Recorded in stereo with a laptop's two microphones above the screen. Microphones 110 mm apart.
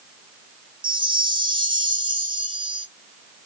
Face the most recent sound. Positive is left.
turn(degrees=-45)  # may be behind; listen again after turning